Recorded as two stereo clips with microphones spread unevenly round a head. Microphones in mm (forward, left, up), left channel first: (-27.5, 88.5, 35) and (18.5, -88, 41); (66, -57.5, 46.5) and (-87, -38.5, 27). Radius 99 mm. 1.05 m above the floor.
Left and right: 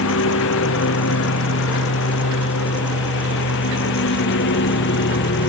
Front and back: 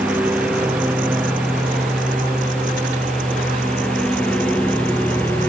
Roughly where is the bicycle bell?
No bicycle bell in this recording.